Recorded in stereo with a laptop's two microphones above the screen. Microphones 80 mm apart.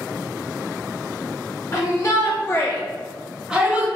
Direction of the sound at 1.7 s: 40° left (ahead or behind).